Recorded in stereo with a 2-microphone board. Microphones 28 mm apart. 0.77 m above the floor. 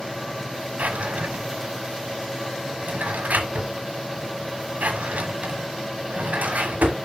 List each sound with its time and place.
0.8 s a drawer: 70° right (ahead or behind), 1.3 m